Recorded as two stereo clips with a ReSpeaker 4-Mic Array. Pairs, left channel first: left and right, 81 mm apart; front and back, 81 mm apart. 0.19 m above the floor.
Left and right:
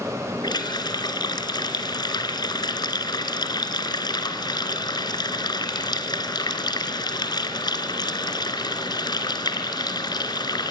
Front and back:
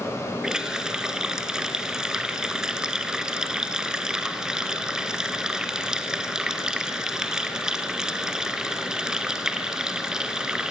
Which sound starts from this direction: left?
A running tap, at 0.4 s.